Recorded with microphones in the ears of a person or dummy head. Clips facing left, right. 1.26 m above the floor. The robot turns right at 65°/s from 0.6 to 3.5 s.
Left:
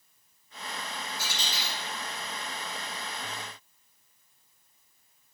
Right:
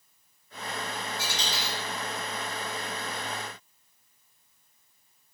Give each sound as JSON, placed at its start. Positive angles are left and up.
{"t": 1.2, "sound": "a dropped coin", "side_deg": -55, "distance_m": 1.7}